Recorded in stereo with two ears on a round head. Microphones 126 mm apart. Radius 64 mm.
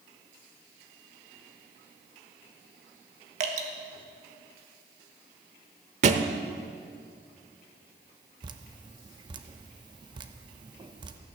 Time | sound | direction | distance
3.4 | dripping | 55° right (ahead or behind) | 1.5 m
6.0 | a thud | 55° right (ahead or behind) | 0.8 m
8.4 | dripping | 35° right (ahead or behind) | 0.9 m